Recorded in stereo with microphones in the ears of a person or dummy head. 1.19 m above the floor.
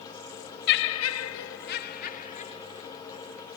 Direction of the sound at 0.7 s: 60° left (ahead or behind).